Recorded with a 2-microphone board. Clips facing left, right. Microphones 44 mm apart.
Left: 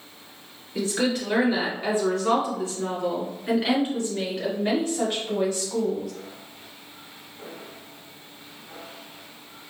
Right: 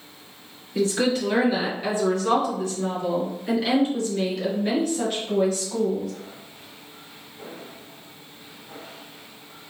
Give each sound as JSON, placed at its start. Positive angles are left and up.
{"t": 0.8, "sound": "a woman speaking", "side_deg": 5, "distance_m": 1.8}